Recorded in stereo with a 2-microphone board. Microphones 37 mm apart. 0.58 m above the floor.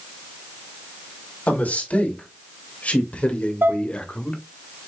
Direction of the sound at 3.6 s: 70° right (ahead or behind).